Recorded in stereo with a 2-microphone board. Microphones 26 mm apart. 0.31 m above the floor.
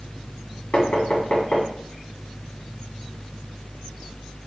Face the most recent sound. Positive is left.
turn(degrees=60)  # may be behind; listen again after turning